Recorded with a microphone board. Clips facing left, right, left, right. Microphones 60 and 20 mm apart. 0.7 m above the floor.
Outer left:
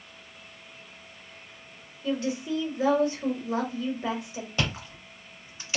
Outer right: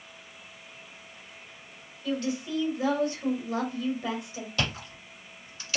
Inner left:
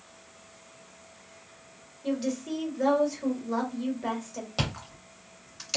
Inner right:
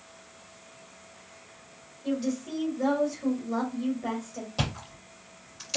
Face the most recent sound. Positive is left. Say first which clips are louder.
# outer left 1 dB, even
turn(degrees=20)  # may be behind; listen again after turning